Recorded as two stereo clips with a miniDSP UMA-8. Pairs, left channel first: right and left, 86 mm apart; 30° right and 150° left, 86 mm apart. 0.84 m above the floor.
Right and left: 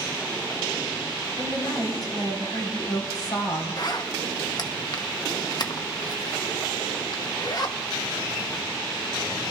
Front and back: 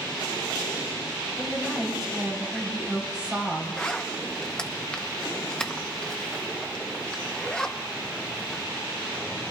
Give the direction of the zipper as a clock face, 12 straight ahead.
4 o'clock.